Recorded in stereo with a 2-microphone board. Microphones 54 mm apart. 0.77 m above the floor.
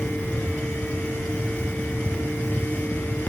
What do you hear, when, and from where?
Only background noise.